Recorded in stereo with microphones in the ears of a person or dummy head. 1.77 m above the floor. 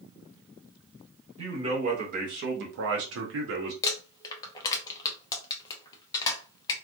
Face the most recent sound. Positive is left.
turn(degrees=20)  # may be behind; listen again after turning